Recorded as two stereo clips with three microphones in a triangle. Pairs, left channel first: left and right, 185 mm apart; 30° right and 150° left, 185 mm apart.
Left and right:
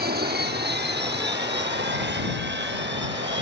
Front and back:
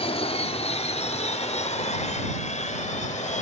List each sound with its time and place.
0.0 s an aircraft: 85° right; by 3.4 s 80° right